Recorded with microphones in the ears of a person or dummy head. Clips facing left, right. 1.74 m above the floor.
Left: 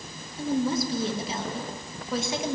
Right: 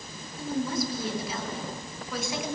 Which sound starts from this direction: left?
A woman speaking, at 0.4 s.